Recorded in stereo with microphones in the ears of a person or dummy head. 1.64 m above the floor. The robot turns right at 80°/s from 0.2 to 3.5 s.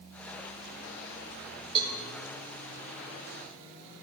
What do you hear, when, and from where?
1.8 s a cowbell: 25° right (ahead or behind), 1.1 m; by 2.0 s 10° right (ahead or behind), 1.1 m